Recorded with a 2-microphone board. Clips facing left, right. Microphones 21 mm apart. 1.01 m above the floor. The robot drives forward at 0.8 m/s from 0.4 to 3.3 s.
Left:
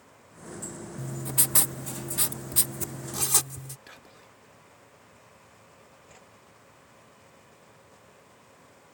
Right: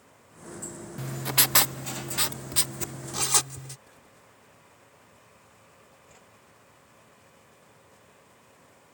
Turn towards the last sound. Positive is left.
turn(degrees=10)  # may be behind; listen again after turning